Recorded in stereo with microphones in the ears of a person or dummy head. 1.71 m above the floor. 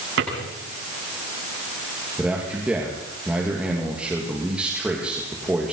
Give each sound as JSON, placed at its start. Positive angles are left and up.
{"t": 0.2, "sound": "a drawer", "side_deg": -80, "distance_m": 9.0}
{"t": 2.2, "sound": "a man speaking", "side_deg": -10, "distance_m": 3.0}